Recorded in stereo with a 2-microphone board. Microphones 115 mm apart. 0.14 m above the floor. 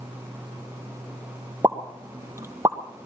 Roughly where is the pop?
Right.